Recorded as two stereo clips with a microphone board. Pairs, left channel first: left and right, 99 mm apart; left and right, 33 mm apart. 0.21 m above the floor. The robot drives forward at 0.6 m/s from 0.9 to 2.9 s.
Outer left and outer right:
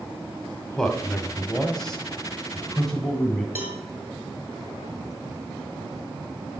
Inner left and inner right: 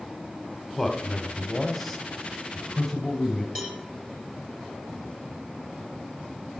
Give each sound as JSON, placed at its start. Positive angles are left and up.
{"t": 0.8, "sound": "a man speaking", "side_deg": 5, "distance_m": 1.1}
{"t": 3.5, "sound": "a cowbell", "side_deg": -20, "distance_m": 1.2}